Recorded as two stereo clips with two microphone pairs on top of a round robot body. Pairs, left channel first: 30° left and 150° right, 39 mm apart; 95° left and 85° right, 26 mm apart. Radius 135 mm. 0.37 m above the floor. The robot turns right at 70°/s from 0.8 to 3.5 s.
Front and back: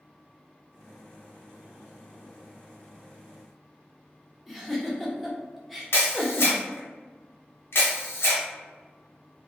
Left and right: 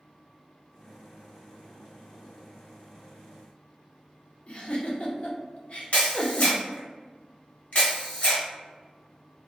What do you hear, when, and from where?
4.5 s a giggle: 135° left, 0.8 m
5.9 s a camera shutter: 60° left, 1.0 m